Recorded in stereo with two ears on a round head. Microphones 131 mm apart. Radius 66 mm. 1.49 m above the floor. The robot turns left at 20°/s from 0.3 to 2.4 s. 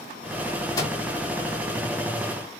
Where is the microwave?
25° left (ahead or behind), 1.7 m; by 1.0 s 30° left (ahead or behind), 1.7 m.